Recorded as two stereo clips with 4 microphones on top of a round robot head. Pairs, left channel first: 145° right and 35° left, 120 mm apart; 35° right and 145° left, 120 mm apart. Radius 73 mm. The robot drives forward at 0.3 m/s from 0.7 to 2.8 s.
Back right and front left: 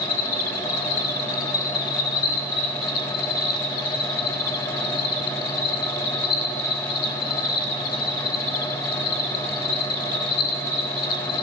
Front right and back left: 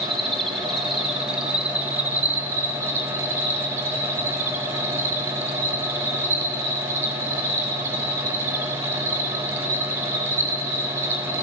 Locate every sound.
0.0 s an insect: 125° right, 1.1 m; by 11.4 s 145° right, 1.5 m